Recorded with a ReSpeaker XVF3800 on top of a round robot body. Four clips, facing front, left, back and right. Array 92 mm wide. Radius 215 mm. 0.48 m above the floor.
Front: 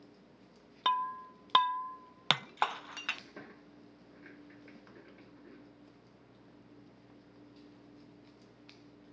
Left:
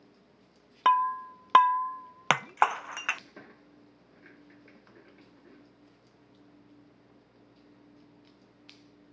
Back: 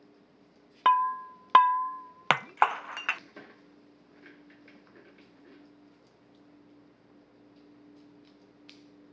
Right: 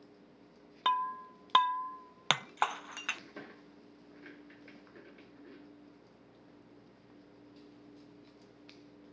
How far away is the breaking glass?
About 0.6 m.